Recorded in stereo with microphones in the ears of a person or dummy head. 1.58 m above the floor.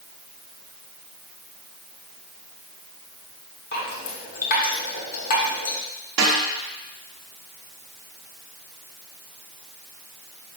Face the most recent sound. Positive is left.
turn(degrees=-70)  # may be behind; listen again after turning